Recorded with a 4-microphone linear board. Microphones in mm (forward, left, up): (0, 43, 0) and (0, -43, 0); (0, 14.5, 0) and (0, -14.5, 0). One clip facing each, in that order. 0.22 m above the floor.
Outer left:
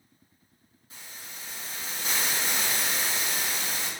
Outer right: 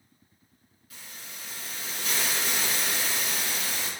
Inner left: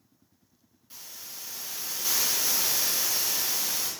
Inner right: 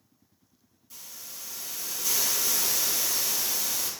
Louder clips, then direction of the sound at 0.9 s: Even, inner left 1 dB; 30° left (ahead or behind).